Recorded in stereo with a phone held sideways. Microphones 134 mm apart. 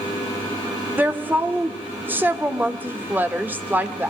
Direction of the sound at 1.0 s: 15° right (ahead or behind).